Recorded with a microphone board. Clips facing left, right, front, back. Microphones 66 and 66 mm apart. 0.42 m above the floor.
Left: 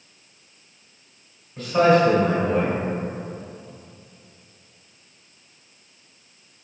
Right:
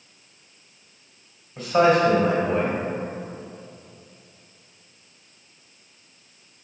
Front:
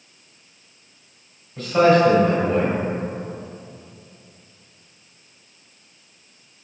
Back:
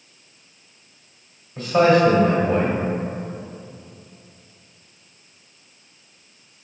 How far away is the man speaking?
About 1.4 m.